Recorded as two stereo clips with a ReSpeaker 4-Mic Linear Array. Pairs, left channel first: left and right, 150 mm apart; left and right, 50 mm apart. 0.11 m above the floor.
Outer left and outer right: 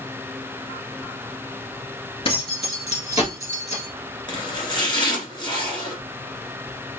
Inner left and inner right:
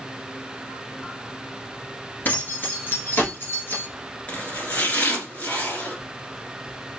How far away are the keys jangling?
About 1.6 m.